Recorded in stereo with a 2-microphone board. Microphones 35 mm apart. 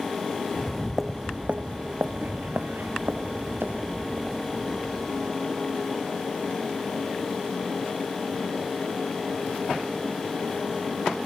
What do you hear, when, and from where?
0.5 s footsteps: 25° left (ahead or behind), 0.6 m; by 5.3 s 85° right, 2.5 m